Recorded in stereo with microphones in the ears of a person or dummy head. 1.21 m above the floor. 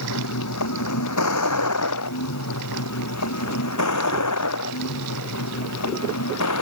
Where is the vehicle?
80° left; by 6.6 s 75° left (ahead or behind).